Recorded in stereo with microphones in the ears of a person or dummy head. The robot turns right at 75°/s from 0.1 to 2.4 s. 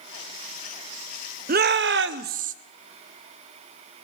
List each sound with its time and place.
1.5 s a shout: 130° right, 0.7 m; by 2.5 s 60° right, 0.7 m